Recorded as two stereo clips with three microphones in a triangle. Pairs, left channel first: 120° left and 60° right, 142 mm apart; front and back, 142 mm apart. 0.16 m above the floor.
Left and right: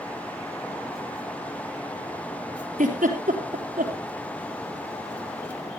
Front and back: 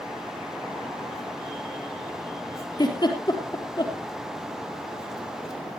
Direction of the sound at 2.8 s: 55° right.